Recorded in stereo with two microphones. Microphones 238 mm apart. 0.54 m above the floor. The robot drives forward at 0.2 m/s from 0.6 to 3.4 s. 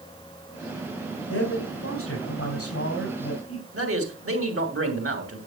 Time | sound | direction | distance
1.3 | a man speaking | 70° left (ahead or behind) | 3.5 m
3.7 | a man speaking | 65° right (ahead or behind) | 3 m